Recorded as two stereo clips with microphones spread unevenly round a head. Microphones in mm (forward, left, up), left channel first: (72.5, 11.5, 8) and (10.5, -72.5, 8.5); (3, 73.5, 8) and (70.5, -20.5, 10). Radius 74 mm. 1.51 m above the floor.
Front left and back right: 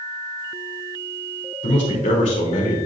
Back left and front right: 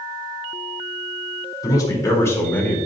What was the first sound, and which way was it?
A man speaking, 70° left.